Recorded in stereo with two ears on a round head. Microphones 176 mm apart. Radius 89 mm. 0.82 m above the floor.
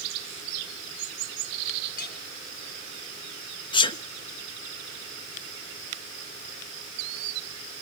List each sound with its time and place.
2.0 s a clink: 45° left (ahead or behind), 4 m
3.7 s a sneeze: 25° left (ahead or behind), 1.0 m